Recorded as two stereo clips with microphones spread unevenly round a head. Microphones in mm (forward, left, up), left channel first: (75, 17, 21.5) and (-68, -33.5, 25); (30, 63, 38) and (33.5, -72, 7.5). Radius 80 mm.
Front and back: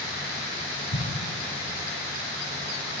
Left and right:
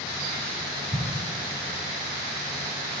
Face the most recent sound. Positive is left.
turn(degrees=30)